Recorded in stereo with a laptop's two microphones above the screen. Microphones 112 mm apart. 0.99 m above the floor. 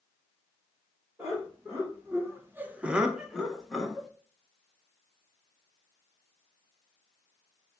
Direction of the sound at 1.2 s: 15° right (ahead or behind).